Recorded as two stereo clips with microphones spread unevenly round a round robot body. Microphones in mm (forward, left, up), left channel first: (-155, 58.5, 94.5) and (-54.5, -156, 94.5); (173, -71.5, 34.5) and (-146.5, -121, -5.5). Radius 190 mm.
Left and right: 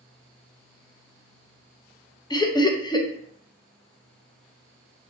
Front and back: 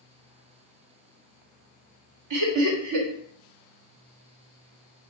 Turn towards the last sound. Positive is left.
turn(degrees=-170)